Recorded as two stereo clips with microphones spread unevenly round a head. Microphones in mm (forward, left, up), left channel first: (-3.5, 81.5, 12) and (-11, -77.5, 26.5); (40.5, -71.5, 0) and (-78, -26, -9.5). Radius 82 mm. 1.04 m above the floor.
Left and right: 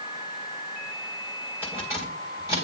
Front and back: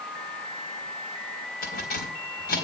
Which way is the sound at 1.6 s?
15° right.